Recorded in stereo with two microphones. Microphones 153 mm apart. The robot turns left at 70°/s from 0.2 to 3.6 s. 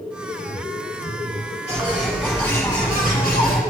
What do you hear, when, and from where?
1.7 s a bird: 135° right, 1.6 m; by 3.6 s 90° left, 1.6 m